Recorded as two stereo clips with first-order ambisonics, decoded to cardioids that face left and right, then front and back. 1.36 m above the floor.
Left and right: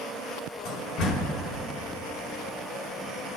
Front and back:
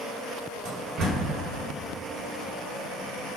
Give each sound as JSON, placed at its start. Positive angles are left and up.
{"t": 0.7, "sound": "a door slam", "azimuth_deg": 130, "distance_m": 3.0}